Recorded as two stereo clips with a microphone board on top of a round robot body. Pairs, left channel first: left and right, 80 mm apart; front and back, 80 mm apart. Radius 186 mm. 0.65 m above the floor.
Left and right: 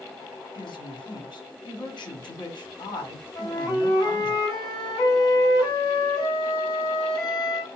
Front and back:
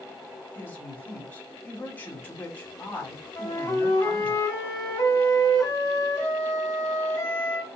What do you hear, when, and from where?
0.6 s a woman speaking: 65° left, 2 m
3.4 s a flute: 55° left, 2.5 m